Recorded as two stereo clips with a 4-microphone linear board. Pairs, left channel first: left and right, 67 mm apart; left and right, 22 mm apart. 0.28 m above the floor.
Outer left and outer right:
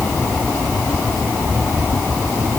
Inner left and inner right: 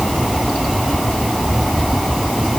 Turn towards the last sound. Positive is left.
No sound to turn to.